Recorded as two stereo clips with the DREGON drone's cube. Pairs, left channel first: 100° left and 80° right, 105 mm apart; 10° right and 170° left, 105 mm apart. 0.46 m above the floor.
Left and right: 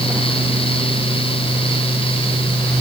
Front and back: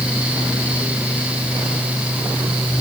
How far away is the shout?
No shout in this recording.